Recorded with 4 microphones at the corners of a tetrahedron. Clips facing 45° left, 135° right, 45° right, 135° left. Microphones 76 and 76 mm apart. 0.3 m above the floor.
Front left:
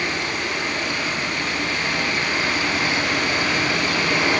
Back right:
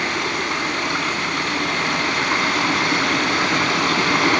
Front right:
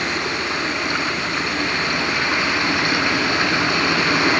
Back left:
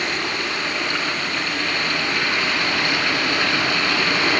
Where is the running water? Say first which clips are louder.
Back right 2 dB, front right 2 dB; 115° right, 3 m.